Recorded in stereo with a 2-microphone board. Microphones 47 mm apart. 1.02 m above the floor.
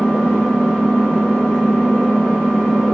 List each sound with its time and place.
0.0 s an engine running: 15° left (ahead or behind), 3.5 m